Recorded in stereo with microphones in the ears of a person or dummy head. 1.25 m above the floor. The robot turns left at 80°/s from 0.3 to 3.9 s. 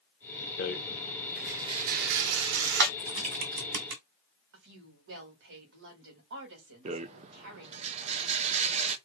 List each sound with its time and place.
0.6 s a rattle: 60° left (ahead or behind), 0.6 m; by 2.9 s 55° right (ahead or behind), 0.6 m
3.0 s typing on a keyboard: 20° right (ahead or behind), 2 m; by 4.0 s 65° right (ahead or behind), 2 m
4.5 s a woman speaking: 75° right (ahead or behind), 1.9 m
6.8 s a rattle: 30° right (ahead or behind), 0.5 m